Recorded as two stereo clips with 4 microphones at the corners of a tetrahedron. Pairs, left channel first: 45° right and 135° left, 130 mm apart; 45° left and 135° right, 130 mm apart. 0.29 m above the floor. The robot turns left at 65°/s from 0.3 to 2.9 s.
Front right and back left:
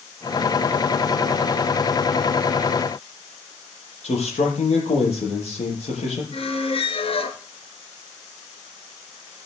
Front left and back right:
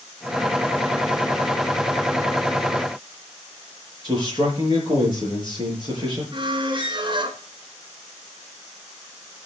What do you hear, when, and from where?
4.0 s a man speaking: 80° right, 6.5 m
6.3 s a squeak: 85° right, 1.5 m